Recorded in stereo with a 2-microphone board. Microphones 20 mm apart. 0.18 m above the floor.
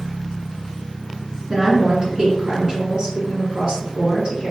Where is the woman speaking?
40° right (ahead or behind), 1.8 m.